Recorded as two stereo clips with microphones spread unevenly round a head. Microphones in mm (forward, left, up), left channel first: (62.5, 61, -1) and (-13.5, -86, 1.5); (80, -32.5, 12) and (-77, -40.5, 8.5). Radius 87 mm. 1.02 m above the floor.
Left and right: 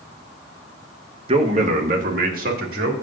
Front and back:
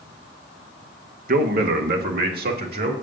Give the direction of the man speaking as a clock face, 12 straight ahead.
6 o'clock.